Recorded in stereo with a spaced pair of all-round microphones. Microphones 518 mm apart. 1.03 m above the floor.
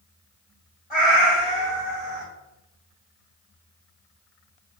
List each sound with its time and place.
0.9 s a cat meowing: 60° left (ahead or behind), 1.6 m